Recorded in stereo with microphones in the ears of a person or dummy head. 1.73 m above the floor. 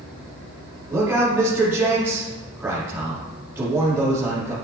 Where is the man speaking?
15° right (ahead or behind), 5 m.